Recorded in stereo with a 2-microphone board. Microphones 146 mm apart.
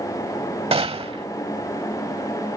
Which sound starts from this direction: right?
A gunshot, at 0.7 s.